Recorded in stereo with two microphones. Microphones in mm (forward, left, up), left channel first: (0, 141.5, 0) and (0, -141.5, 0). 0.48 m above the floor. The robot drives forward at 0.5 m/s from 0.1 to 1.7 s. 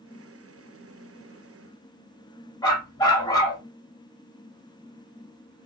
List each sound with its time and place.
2.6 s a dog barking: 15° left (ahead or behind), 1.2 m